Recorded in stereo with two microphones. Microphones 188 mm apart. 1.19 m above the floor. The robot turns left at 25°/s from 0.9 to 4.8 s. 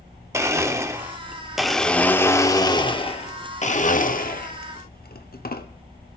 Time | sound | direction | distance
0.3 | a blender | 160° right | 1.1 m